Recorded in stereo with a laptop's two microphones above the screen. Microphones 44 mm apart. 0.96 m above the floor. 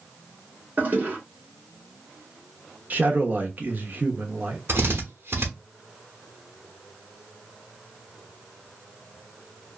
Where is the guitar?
No guitar in this recording.